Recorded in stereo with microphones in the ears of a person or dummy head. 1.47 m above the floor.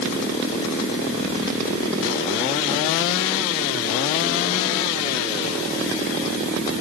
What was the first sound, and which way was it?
Only background noise.